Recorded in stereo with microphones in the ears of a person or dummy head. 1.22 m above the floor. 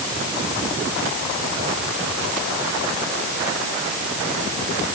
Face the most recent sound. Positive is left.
No sound to turn to.